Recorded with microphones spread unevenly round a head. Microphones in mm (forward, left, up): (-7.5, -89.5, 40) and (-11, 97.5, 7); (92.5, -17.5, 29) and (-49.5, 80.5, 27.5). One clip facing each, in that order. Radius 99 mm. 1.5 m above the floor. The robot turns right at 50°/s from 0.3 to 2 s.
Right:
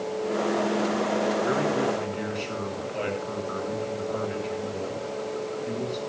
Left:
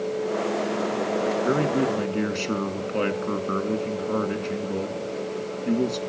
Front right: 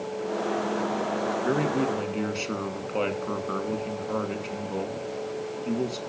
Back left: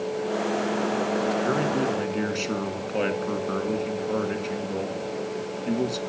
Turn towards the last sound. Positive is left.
turn(degrees=60)